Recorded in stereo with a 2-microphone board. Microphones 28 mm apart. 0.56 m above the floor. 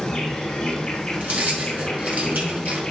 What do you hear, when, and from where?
0.0 s an insect: 25° left (ahead or behind), 4 m
1.2 s keys jangling: 80° right, 2.5 m